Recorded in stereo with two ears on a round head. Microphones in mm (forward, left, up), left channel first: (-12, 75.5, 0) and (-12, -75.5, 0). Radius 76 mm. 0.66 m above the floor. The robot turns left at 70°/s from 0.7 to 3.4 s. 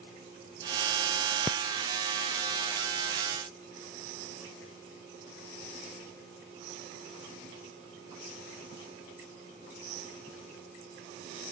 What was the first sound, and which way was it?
Only background noise.